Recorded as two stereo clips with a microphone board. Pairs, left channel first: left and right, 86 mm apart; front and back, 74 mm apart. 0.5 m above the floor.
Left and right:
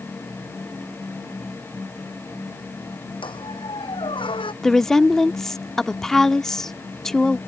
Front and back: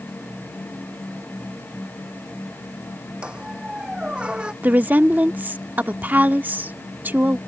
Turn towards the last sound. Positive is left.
turn(degrees=170)